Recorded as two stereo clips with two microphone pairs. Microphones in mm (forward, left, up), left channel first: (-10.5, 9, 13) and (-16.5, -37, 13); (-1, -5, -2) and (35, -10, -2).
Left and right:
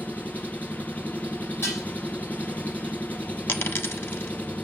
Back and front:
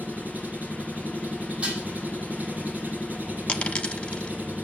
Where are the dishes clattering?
50° left, 8 m.